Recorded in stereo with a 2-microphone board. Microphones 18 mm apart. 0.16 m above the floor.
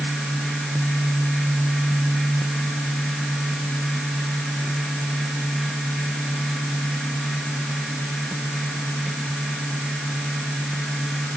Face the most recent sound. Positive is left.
No sound to turn to.